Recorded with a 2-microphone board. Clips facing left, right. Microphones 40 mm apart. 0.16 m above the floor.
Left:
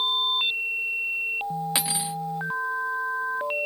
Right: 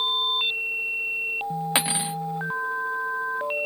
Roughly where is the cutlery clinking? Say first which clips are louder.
Right 3 dB; right.